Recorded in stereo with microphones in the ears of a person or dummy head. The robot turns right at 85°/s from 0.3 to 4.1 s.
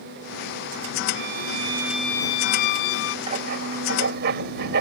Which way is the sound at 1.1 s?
75° right.